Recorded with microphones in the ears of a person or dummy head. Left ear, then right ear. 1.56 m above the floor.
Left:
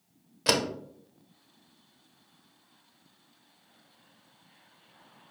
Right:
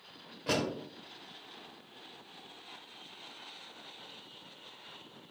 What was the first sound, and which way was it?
A door slam, 70° left (ahead or behind).